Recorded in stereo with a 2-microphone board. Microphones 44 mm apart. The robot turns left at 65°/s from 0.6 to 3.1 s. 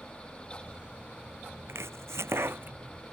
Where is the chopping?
70° right (ahead or behind); by 3.1 s 20° right (ahead or behind).